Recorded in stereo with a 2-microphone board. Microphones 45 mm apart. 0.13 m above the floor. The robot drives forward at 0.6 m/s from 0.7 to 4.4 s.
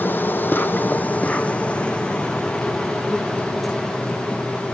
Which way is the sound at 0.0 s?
50° left (ahead or behind).